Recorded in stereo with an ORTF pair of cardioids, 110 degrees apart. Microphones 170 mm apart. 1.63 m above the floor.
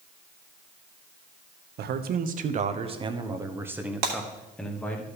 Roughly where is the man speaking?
Ahead right.